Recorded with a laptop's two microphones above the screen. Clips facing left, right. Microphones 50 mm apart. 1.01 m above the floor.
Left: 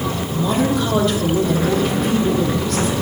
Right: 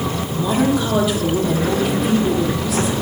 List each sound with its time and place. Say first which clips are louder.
0.3 s a woman speaking: right 1 dB; 5° right (ahead or behind), 1.1 m